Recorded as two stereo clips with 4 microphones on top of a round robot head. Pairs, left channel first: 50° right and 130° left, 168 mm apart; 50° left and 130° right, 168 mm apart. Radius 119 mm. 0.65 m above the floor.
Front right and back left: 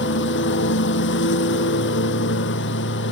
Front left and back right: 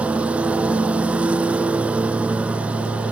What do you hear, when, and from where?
0.0 s a lawn mower: 45° right